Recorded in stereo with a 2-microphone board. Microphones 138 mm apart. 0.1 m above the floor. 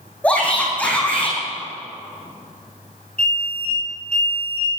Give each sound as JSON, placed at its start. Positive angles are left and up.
{"t": 0.2, "sound": "a shout", "side_deg": 10, "distance_m": 5.0}
{"t": 3.2, "sound": "an alarm", "side_deg": 10, "distance_m": 6.0}